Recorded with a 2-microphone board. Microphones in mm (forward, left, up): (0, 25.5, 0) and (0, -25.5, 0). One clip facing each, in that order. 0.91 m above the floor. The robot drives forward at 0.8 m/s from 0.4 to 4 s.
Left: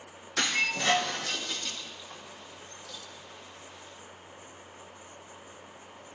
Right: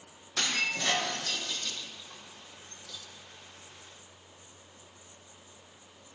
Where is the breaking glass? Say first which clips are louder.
Left 3 dB; 10° left (ahead or behind), 7 m; by 3.0 s 15° left (ahead or behind), 5 m.